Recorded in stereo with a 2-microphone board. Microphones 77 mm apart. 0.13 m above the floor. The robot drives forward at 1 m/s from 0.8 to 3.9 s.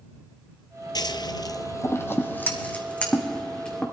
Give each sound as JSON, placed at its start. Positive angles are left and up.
{"t": 0.9, "sound": "scissors", "side_deg": 65, "distance_m": 0.6}